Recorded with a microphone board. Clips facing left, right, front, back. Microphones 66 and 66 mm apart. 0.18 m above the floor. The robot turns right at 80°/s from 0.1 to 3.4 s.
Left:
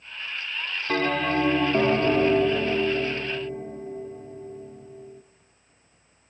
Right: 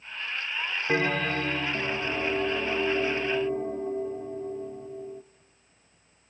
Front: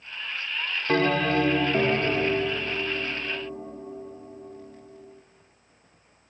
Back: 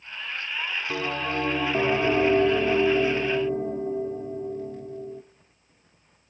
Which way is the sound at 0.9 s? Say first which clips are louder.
Left 3 dB, front 9 dB; 20° right.